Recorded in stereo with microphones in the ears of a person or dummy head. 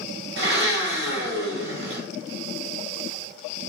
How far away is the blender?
About 1.3 m.